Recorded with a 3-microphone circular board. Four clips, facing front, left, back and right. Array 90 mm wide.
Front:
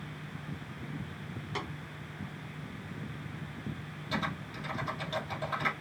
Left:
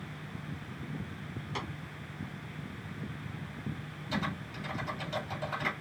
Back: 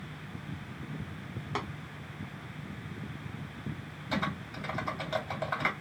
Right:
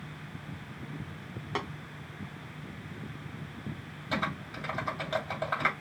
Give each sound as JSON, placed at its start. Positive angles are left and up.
{"t": 1.6, "sound": "tapping", "azimuth_deg": -115, "distance_m": 2.0}
{"t": 4.1, "sound": "typing on a keyboard", "azimuth_deg": -115, "distance_m": 2.5}